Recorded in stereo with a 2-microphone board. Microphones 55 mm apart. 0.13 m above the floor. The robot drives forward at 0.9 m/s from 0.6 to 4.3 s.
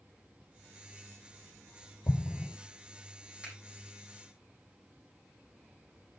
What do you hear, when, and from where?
2.1 s an explosion: 60° left (ahead or behind), 0.9 m; by 2.5 s 45° left (ahead or behind), 1.1 m
3.4 s a finger snap: 20° right (ahead or behind), 5 m